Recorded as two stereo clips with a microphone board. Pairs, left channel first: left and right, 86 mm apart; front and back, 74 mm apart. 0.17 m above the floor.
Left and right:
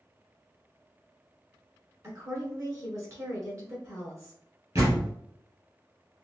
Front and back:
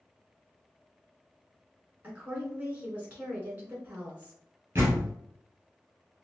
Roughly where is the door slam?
Behind right.